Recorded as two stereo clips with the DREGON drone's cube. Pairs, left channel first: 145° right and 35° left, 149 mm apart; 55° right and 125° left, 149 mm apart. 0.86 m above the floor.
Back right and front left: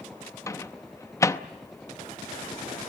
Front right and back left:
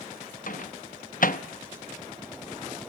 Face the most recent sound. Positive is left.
turn(degrees=-75)